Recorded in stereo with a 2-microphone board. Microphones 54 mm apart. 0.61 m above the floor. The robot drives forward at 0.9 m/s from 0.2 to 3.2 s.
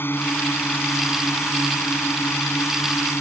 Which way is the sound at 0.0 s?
45° left (ahead or behind).